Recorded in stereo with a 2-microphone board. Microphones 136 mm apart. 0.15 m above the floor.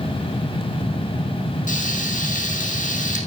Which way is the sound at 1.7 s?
70° left (ahead or behind).